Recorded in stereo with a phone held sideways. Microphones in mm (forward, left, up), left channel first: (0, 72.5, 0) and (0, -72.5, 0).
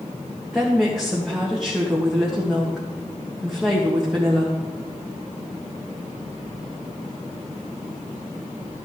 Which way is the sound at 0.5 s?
Centre (ahead or behind).